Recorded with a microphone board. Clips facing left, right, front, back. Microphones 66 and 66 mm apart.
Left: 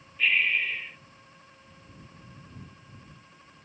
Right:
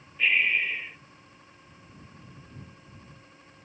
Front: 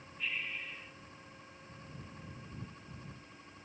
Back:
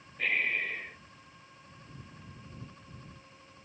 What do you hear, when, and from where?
0.2 s breathing: 170° right